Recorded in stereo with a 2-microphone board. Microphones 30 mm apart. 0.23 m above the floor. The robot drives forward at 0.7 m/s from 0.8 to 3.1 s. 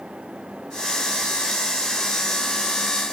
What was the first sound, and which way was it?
Only background noise.